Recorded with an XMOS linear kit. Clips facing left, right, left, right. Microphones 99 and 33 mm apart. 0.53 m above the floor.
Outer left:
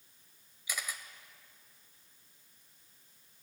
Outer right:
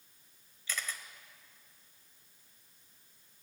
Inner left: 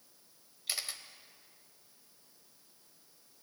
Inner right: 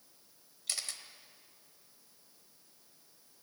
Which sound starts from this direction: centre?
A camera shutter, at 0.7 s.